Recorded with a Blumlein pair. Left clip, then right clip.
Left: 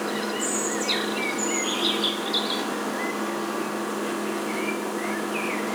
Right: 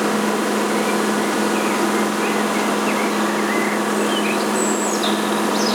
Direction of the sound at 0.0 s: 60° right.